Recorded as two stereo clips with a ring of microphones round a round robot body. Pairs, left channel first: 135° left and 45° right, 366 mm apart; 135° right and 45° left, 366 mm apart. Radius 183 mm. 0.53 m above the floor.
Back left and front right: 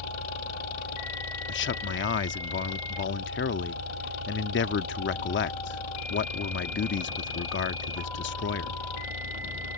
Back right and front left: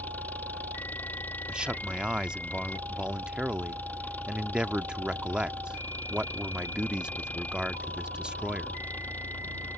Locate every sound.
0.0 s an engine running: 140° left
1.5 s a man speaking: 130° left